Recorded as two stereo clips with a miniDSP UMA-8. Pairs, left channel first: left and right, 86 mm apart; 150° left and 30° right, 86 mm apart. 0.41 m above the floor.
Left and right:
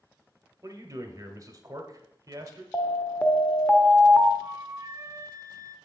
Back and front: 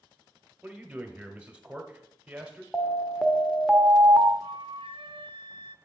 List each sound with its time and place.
0.6 s a man speaking: 100° right, 1.1 m
2.7 s an alarm: 60° left, 0.6 m
4.4 s a flute: 35° right, 0.6 m